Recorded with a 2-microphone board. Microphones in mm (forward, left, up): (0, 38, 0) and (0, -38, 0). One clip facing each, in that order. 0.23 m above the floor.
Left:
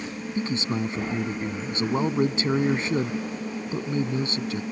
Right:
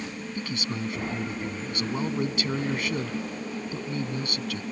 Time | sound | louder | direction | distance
0.3 | a man speaking | left 7 dB | 30° left (ahead or behind) | ?